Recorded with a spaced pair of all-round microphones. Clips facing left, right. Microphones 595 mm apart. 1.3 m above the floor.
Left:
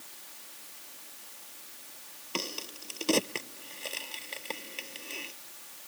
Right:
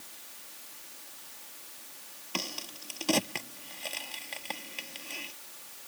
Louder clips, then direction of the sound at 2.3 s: Left 2 dB; 15° right (ahead or behind).